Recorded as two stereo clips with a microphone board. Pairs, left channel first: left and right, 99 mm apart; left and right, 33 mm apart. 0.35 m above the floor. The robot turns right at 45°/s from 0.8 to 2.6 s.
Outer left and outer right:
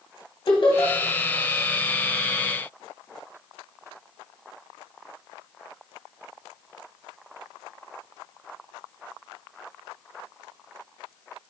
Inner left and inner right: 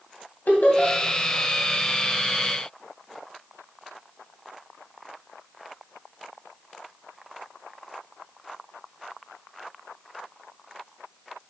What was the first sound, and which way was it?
Laughter, 60° left (ahead or behind).